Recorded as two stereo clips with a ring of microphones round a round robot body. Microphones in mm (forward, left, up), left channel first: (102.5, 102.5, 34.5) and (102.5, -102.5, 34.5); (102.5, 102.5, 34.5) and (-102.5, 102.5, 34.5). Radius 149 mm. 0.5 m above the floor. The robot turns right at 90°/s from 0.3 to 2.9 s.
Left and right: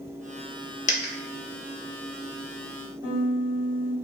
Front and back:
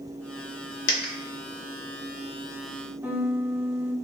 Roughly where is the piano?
Left.